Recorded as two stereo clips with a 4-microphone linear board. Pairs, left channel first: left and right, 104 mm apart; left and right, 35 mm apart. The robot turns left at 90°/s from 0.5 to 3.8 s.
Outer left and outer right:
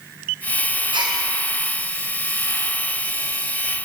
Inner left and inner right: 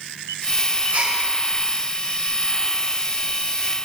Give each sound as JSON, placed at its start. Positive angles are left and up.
{"t": 0.9, "sound": "a gasp", "side_deg": -55, "distance_m": 5.0}